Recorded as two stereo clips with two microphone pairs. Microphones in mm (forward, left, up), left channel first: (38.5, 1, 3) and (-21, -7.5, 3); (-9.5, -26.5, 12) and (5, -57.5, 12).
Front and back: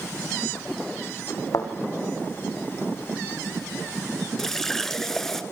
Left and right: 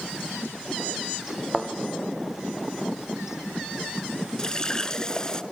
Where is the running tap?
80° left, 0.9 m.